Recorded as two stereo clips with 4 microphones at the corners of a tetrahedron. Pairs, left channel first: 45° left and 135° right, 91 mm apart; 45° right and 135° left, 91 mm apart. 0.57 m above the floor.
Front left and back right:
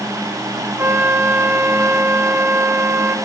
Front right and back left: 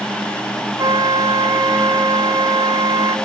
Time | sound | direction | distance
0.8 | a flute | 165° left | 0.5 m